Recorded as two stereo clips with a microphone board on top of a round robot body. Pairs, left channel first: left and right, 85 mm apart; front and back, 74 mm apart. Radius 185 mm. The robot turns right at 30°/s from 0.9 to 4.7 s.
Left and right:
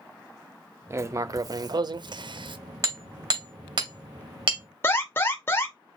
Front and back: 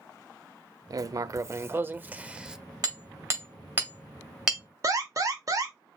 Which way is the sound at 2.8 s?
140° right.